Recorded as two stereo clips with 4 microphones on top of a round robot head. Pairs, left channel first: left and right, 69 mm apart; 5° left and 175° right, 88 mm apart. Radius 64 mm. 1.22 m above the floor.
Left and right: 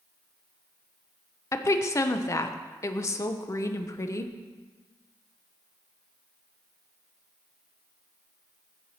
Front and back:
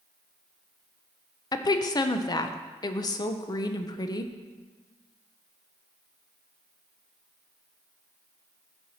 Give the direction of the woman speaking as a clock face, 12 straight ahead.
10 o'clock.